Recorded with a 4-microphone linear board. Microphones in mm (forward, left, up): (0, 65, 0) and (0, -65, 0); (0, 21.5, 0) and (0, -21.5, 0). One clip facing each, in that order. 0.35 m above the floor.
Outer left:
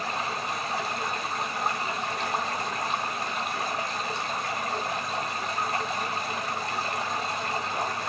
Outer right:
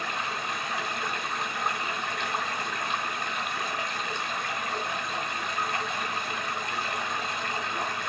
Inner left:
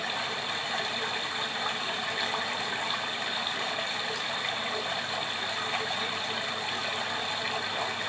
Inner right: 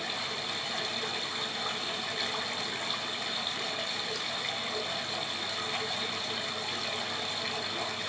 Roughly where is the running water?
Left.